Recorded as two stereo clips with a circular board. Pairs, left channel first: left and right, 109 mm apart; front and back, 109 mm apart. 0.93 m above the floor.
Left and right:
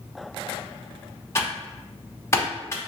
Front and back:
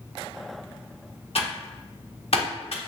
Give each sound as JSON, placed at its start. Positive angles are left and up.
{"t": 1.4, "sound": "typing on a keyboard", "azimuth_deg": 25, "distance_m": 1.0}